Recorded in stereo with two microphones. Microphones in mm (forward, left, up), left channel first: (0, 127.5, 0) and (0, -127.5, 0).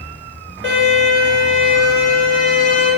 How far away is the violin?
About 1.0 m.